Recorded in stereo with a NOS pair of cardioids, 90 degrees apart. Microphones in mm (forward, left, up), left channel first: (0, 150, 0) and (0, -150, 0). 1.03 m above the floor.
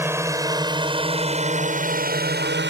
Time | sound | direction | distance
0.0 | a drone | 10° right | ?